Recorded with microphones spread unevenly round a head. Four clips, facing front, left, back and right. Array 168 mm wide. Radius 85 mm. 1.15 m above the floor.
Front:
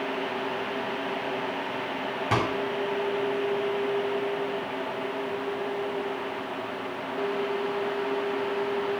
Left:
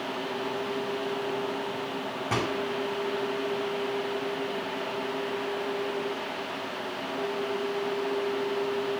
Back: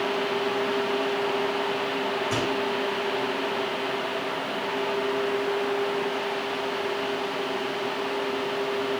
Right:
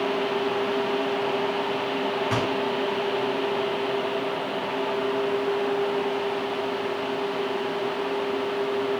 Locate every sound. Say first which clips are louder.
2.3 s a microwave: right 4 dB, front 1 dB; 35° left, 6.5 m